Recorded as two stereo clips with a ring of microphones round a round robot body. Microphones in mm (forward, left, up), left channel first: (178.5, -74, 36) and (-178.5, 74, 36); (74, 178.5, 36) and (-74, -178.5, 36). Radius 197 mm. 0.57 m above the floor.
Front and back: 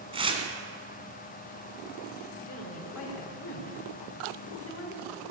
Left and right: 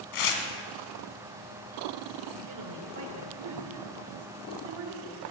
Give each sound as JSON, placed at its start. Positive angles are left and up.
{"t": 0.1, "sound": "tearing paper", "azimuth_deg": 80, "distance_m": 1.9}
{"t": 2.5, "sound": "a woman speaking", "azimuth_deg": -70, "distance_m": 2.5}